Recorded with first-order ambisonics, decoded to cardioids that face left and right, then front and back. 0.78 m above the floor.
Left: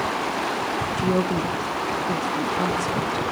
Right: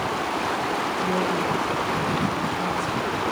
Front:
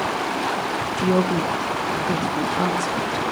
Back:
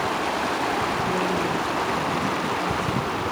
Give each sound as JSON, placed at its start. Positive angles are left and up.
{"t": 1.0, "sound": "a woman speaking", "azimuth_deg": 25, "distance_m": 1.3}